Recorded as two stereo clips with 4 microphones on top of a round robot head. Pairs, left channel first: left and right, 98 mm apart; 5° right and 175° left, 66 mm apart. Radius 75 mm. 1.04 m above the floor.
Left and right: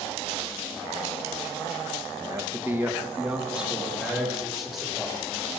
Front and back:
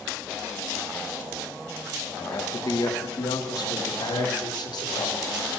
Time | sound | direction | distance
2.2 | a man speaking | 35° right | 1.1 m